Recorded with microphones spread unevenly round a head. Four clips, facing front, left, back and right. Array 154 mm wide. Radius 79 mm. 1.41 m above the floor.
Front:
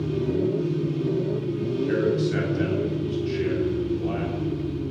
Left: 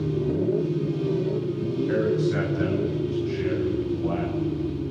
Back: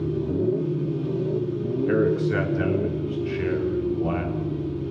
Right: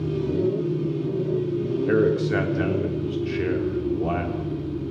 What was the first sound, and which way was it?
A man speaking, 105° right.